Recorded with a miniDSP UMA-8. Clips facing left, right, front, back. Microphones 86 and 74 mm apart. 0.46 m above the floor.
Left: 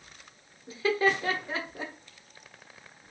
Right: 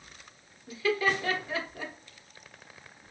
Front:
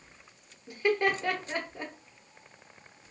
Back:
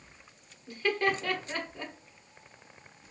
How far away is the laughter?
About 0.8 m.